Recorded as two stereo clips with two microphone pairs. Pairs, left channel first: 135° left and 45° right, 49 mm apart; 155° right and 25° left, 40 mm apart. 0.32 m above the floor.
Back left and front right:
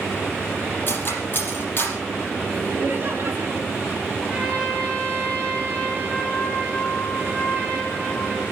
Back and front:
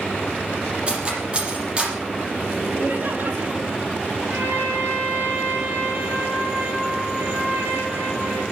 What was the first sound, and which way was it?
Cutlery clinking, 90° left.